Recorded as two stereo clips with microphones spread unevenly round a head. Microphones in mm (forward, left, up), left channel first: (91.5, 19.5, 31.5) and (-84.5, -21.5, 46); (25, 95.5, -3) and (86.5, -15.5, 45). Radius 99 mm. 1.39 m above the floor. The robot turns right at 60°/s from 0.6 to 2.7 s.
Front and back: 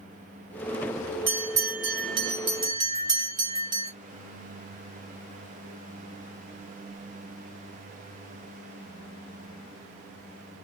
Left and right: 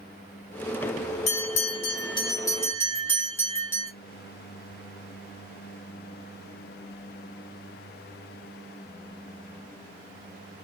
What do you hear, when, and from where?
1.3 s a bell: 135° left, 0.9 m; by 3.9 s 140° right, 0.9 m